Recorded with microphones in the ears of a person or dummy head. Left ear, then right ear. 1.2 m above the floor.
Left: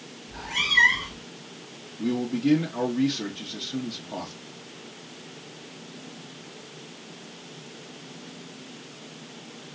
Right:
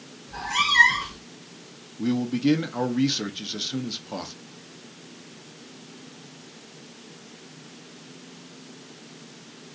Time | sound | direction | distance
0.3 | a cat meowing | 70° right (ahead or behind) | 1.9 m
2.0 | a man speaking | 35° right (ahead or behind) | 0.6 m